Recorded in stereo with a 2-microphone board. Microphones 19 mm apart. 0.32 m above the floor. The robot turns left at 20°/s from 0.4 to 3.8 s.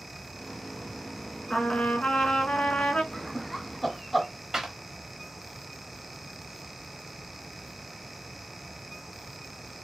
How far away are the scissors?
I don't hear scissors.